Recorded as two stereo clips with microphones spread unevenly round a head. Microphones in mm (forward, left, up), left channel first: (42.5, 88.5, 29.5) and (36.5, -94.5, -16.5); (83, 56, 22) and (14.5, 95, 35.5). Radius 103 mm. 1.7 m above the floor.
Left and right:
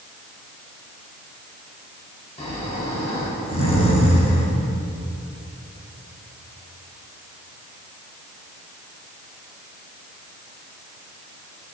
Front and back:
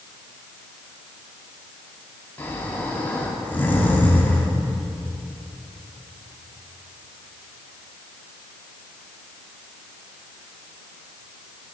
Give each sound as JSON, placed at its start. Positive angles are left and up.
{"t": 2.4, "sound": "snoring", "azimuth_deg": 45, "distance_m": 2.0}